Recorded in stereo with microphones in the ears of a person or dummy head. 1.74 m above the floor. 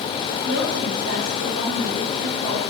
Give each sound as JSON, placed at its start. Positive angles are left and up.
{"t": 0.5, "sound": "a woman speaking", "side_deg": -60, "distance_m": 5.0}